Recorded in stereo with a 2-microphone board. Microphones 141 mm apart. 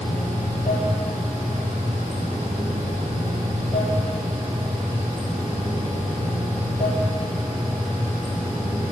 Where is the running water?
50° left (ahead or behind), 2.5 m.